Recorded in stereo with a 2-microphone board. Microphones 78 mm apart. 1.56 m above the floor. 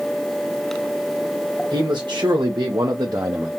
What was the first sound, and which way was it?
A man speaking, 80° right.